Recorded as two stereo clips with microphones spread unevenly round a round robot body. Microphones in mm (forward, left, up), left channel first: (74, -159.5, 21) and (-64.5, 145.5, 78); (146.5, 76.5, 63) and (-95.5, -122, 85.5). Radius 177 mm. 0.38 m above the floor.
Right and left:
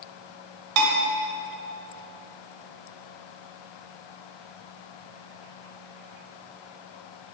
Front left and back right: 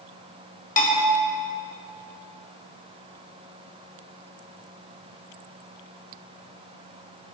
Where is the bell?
100° left, 2.5 m.